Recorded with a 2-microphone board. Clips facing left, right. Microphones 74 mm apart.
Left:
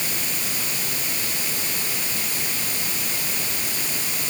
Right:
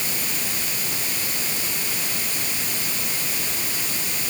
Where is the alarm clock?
No alarm clock in this recording.